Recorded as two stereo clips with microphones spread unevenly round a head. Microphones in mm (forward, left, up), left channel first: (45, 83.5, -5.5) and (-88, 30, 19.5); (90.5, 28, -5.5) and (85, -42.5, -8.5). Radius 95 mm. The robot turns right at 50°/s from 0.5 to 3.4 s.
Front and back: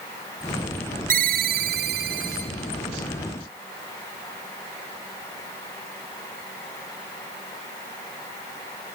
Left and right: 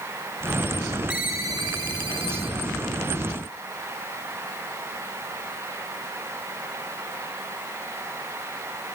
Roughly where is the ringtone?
Behind.